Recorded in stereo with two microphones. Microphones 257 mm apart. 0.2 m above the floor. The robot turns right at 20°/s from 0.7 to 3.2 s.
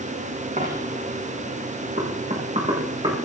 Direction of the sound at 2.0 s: 40° right (ahead or behind).